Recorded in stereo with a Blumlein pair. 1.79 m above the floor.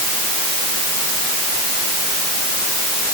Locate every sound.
Only background noise.